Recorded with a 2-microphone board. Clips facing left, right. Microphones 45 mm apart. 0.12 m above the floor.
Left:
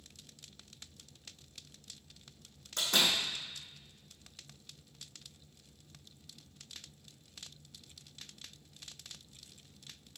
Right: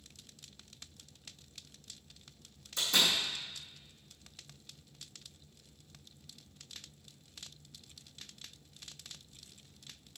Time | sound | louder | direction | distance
2.8 | a door slam | even | 55° left (ahead or behind) | 4.5 m